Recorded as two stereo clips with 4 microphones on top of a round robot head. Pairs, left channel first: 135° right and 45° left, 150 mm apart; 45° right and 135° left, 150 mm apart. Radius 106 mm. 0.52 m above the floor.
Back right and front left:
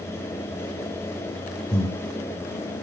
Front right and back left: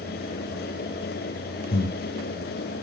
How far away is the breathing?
About 1.6 m.